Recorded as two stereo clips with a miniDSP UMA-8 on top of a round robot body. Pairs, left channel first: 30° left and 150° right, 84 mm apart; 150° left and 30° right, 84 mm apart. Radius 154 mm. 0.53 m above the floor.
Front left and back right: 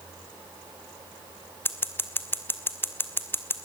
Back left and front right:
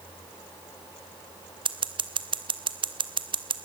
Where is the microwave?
I don't hear a microwave.